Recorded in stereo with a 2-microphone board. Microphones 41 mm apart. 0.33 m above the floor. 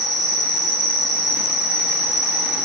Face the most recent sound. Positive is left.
turn(degrees=5)  # may be behind; listen again after turning